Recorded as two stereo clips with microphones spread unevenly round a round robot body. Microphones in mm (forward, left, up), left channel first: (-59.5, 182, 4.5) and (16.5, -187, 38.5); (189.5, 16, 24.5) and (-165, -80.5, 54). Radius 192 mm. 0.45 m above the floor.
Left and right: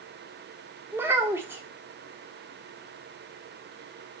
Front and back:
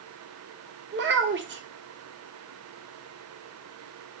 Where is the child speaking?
165° right, 0.6 m.